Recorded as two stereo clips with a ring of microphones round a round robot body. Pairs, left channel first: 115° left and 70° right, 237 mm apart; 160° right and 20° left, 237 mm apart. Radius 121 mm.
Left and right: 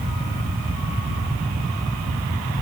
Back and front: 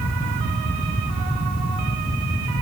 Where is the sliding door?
No sliding door in this recording.